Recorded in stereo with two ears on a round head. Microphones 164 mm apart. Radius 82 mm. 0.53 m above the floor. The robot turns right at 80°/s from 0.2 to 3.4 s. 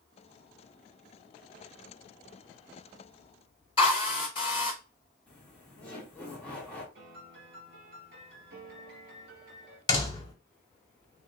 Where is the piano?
50° right (ahead or behind), 3.5 m.